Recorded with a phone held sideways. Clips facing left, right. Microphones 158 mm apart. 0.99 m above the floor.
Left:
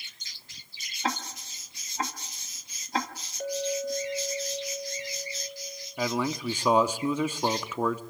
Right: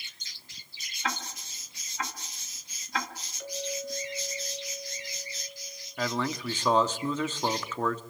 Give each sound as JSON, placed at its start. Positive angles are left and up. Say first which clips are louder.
{"t": 1.0, "sound": "ticking", "louder": "left 3 dB", "side_deg": 35, "distance_m": 2.0}
{"t": 3.4, "sound": "a clink", "louder": "left 7 dB", "side_deg": 45, "distance_m": 4.0}
{"t": 6.0, "sound": "a man speaking", "louder": "left 2 dB", "side_deg": 10, "distance_m": 1.4}